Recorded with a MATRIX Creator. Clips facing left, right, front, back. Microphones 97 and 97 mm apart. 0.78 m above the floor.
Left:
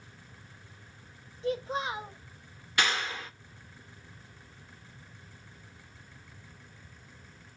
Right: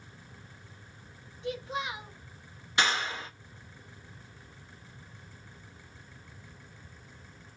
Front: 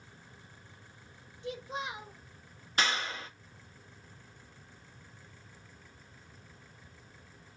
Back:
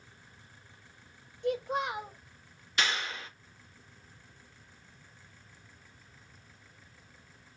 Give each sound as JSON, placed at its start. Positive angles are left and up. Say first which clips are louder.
{"t": 1.4, "sound": "a child speaking", "louder": "left 3 dB, back 7 dB", "azimuth_deg": 145, "distance_m": 0.5}
{"t": 2.8, "sound": "a clap", "louder": "right 1 dB, front 1 dB", "azimuth_deg": -30, "distance_m": 0.9}